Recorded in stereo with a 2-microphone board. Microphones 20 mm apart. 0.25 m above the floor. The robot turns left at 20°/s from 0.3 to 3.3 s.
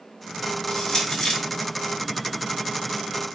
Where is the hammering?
I don't hear hammering.